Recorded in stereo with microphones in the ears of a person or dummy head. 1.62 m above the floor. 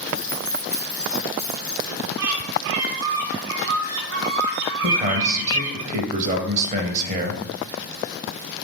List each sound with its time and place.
0.1 s keys jangling: 15° left (ahead or behind), 1.4 m
2.2 s a bird: 65° right (ahead or behind), 0.7 m
4.8 s a man speaking: 35° right (ahead or behind), 0.6 m